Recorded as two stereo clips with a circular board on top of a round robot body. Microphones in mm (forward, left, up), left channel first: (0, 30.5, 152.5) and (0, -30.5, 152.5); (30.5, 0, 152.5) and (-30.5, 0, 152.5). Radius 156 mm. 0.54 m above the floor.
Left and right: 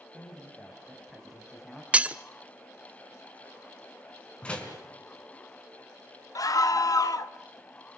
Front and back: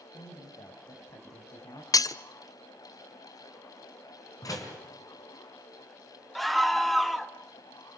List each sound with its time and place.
0.1 s a man speaking: 10° left, 4 m; by 1.8 s straight ahead, 5 m
1.9 s breaking glass: 20° right, 0.8 m
4.4 s a door slam: 20° left, 4.5 m
6.3 s a scream: 90° left, 1.7 m